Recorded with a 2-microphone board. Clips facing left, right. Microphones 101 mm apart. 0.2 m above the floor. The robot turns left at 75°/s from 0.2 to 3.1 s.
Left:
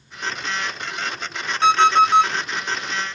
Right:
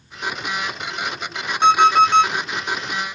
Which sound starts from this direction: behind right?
An alarm clock, at 1.6 s.